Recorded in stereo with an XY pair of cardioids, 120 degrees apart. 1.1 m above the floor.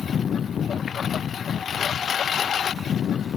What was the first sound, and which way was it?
A lawn mower, 40° left.